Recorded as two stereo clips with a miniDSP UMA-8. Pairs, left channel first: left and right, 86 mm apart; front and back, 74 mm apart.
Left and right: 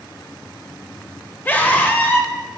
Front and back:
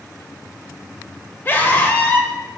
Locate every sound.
1.4 s a scream: 40° left, 1.1 m